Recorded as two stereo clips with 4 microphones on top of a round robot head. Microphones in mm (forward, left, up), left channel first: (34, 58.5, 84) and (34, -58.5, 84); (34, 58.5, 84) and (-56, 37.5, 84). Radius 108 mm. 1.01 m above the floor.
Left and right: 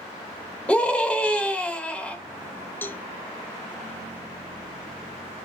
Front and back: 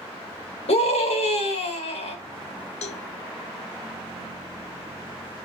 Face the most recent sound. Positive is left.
turn(degrees=15)